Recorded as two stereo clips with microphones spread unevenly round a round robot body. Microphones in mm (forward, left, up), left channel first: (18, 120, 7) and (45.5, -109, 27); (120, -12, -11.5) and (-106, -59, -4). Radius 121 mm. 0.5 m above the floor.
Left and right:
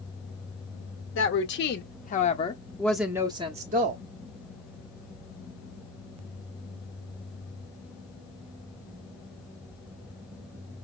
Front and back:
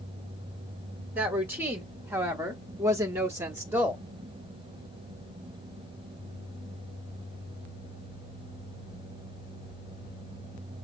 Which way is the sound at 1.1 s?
110° left.